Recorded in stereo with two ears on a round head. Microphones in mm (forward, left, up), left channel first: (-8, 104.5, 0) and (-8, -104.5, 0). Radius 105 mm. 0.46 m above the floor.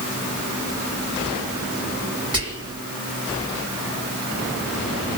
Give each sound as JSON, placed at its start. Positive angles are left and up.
{"t": 2.3, "sound": "whispering", "side_deg": -20, "distance_m": 1.6}